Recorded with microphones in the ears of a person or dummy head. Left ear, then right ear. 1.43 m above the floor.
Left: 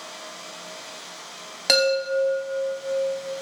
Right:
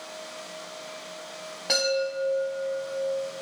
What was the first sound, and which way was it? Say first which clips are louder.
A chime: left 5 dB; 70° left (ahead or behind).